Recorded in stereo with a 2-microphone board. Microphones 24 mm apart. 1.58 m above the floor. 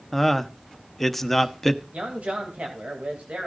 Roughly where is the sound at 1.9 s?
Right.